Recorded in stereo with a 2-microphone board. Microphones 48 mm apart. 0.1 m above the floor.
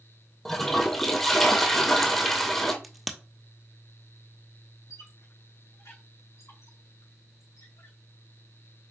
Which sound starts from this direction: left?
A squeak, at 4.9 s.